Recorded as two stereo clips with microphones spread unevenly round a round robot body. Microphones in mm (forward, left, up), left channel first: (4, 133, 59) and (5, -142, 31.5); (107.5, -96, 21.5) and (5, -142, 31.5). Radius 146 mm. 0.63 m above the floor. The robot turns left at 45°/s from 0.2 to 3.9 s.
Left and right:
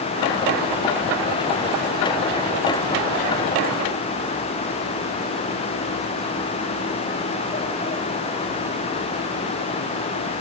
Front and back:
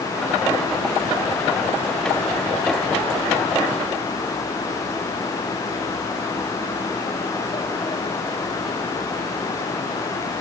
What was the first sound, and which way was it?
Only background noise.